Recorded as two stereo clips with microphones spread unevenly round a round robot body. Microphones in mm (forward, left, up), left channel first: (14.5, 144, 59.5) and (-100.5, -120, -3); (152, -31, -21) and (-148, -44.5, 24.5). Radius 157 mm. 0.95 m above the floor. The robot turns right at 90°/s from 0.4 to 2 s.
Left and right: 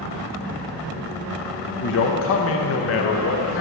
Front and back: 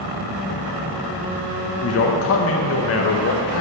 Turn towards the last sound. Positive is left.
turn(degrees=20)